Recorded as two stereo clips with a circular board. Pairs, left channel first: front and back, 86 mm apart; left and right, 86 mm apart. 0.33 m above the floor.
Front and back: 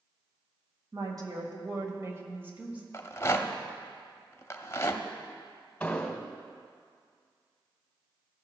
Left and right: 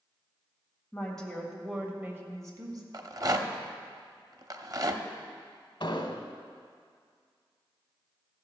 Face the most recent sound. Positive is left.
turn(degrees=75)